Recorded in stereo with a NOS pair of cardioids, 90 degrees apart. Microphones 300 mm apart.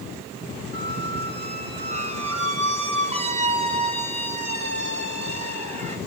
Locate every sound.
0.7 s a squeak: 20° right, 5 m